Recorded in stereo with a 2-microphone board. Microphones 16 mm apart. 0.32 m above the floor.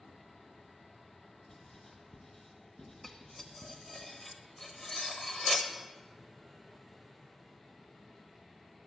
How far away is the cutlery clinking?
About 0.8 m.